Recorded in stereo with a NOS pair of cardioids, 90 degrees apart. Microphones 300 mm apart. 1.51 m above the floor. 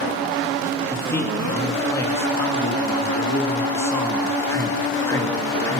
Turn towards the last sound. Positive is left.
turn(degrees=10)